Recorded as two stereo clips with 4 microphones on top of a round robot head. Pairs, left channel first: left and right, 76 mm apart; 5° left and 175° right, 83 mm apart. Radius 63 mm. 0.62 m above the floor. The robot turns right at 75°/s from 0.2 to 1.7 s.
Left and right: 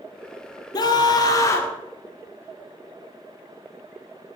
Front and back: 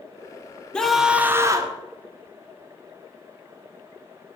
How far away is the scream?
About 2 m.